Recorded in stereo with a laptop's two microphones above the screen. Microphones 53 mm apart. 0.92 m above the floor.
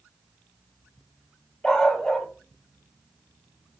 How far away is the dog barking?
About 2.5 m.